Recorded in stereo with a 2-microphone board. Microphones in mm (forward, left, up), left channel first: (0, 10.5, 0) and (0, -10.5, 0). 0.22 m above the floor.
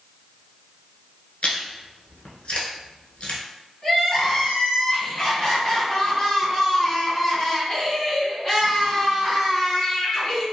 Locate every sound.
1.4 s chewing: 65° left (ahead or behind), 0.8 m
3.8 s crying: 35° left (ahead or behind), 1.8 m